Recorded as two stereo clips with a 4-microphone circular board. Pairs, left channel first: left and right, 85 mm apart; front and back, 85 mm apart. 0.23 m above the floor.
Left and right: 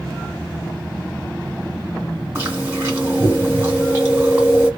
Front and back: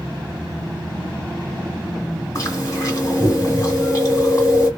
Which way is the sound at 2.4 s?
40° right.